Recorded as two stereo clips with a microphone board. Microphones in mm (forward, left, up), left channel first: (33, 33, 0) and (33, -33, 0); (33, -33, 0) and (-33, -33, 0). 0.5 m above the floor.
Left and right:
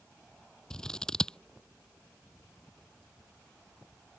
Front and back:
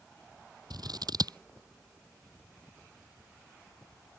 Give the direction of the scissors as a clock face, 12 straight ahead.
6 o'clock.